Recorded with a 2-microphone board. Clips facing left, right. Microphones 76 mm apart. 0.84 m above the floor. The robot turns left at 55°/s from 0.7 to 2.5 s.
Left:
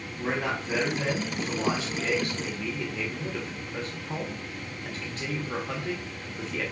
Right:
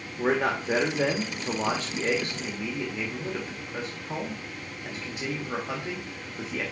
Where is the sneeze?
I don't hear a sneeze.